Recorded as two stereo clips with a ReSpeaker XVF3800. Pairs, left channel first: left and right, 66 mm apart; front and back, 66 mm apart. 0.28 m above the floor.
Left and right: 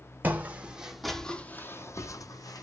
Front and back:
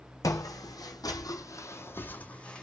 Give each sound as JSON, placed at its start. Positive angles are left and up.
{"t": 0.2, "sound": "footsteps", "azimuth_deg": -25, "distance_m": 0.9}